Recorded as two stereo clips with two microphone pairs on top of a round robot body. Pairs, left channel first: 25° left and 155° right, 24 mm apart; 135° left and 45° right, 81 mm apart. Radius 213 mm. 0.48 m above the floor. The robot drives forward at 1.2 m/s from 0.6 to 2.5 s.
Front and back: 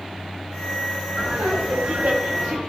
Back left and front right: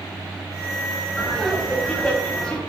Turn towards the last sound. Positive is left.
turn(degrees=-145)